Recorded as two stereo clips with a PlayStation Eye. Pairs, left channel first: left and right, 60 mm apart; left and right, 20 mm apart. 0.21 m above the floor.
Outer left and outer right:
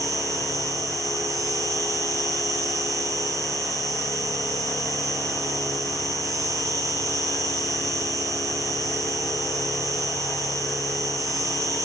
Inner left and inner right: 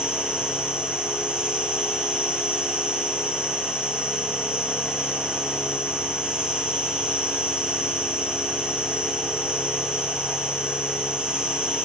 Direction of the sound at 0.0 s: 65° right (ahead or behind).